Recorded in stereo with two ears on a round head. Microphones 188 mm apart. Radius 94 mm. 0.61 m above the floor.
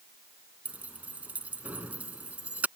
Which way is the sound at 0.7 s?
5° right (ahead or behind).